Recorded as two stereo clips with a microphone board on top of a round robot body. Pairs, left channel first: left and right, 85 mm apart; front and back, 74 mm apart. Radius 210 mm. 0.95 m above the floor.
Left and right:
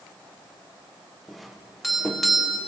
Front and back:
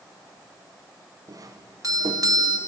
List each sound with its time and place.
1.3 s a doorbell: straight behind, 1.4 m